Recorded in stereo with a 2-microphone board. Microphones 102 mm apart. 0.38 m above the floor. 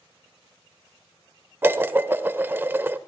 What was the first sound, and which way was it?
Dishes clattering, 20° right (ahead or behind).